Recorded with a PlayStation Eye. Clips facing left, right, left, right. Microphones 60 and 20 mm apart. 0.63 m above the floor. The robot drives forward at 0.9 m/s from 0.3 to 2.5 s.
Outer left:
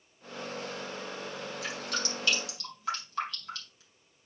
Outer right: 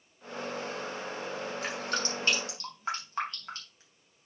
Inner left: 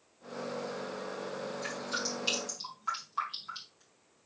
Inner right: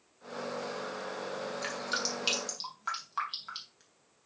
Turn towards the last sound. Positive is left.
turn(degrees=-40)  # may be behind; listen again after turning